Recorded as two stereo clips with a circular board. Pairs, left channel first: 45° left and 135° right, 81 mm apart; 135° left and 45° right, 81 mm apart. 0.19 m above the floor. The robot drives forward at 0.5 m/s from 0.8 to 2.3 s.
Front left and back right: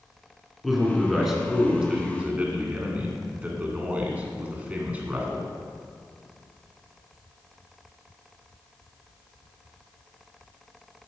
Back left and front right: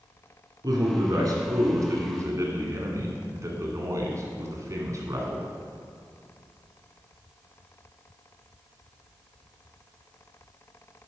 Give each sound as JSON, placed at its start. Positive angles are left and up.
{"t": 0.6, "sound": "a man speaking", "azimuth_deg": -45, "distance_m": 2.0}